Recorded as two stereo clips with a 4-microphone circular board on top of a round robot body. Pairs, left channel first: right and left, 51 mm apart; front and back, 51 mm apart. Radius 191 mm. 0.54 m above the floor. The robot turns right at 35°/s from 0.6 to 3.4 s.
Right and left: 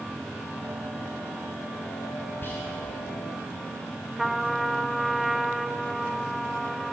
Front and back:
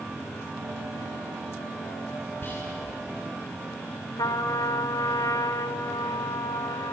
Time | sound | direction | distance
2.4 | whispering | 45° right | 5.5 m
4.2 | a trumpet | 5° left | 0.6 m